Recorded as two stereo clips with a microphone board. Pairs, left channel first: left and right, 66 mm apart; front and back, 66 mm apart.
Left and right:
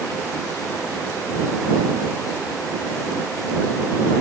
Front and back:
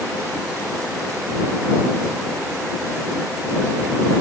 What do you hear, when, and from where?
Only background noise.